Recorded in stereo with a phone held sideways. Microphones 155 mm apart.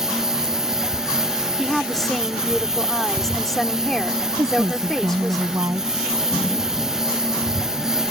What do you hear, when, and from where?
0.0 s a lawn mower: 5° right (ahead or behind)
1.6 s a woman speaking: centre (ahead or behind)
4.4 s a woman speaking: 20° right (ahead or behind)